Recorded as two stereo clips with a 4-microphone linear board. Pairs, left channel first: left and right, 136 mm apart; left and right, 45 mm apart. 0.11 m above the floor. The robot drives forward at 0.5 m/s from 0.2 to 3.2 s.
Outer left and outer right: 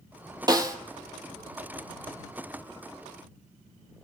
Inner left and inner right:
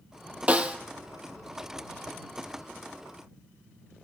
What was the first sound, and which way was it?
A snare drum, 30° right (ahead or behind).